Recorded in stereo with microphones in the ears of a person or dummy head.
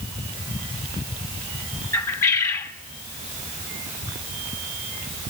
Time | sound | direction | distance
1.9 | a bird | 15° left (ahead or behind) | 1.2 m